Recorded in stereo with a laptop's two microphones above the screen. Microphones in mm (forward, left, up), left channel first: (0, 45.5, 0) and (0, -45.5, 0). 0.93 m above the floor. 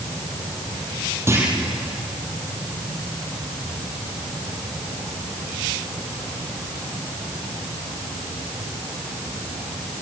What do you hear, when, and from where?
1.3 s a clunk: 30° right (ahead or behind), 4.5 m